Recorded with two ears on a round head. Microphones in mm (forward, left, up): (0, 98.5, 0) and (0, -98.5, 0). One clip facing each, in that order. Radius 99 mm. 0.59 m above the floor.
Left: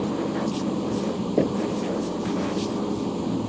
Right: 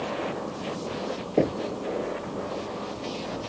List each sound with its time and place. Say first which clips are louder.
0.0 s an engine running: left 6 dB; 55° left (ahead or behind)
1.4 s knocking: left 1 dB; 5° left (ahead or behind)